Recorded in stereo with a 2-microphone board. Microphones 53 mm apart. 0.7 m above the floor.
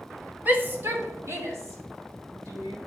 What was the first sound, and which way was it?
A shout, 35° right (ahead or behind).